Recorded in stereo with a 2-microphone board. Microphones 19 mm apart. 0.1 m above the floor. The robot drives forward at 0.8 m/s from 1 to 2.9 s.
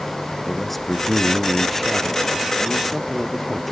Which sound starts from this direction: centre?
A man speaking, at 0.4 s.